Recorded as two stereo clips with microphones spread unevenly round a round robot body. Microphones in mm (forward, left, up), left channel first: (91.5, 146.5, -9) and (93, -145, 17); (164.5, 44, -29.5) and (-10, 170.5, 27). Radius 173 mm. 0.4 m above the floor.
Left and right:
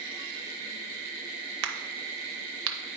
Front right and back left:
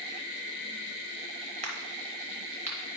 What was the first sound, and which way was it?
A crack, 140° right.